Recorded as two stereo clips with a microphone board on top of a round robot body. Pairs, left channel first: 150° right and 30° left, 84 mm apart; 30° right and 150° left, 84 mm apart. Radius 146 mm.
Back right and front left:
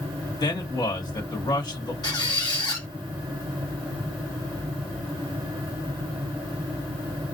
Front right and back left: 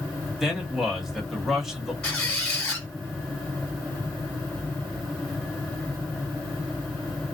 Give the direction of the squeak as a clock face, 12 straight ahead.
4 o'clock.